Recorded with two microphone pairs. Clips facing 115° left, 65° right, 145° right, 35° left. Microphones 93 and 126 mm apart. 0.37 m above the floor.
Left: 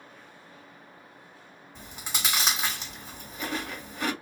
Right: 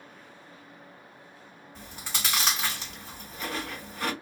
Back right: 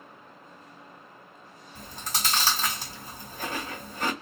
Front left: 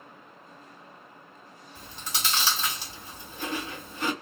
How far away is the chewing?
About 2 m.